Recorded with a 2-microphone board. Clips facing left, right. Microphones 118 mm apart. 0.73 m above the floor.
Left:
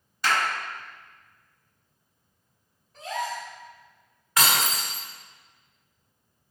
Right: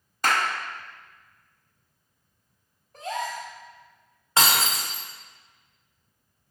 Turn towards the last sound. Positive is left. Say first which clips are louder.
# right 1 dB
turn(degrees=-25)  # may be behind; listen again after turning